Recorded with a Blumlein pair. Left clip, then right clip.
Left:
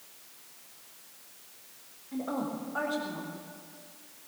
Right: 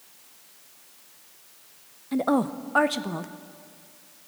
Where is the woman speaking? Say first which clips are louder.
Right 10 dB; 35° right, 0.8 m.